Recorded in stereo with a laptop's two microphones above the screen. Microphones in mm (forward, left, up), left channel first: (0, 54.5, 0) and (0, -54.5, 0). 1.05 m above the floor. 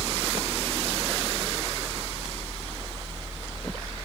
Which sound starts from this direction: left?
A fan, at 0.0 s.